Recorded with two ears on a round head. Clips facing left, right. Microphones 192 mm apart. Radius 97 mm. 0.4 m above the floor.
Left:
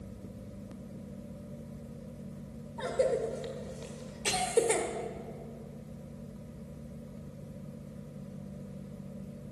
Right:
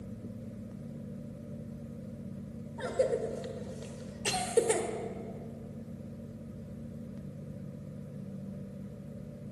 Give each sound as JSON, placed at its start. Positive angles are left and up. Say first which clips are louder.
{"t": 2.8, "sound": "a cough", "louder": "left 1 dB", "side_deg": -5, "distance_m": 1.2}